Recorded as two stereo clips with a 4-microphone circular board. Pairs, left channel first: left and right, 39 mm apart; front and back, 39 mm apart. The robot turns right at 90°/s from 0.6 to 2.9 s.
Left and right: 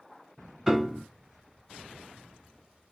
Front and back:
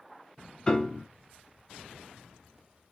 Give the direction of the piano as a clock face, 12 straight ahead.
1 o'clock.